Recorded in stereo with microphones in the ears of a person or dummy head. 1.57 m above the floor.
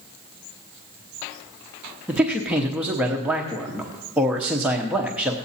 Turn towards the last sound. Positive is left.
turn(degrees=-10)  # may be behind; listen again after turning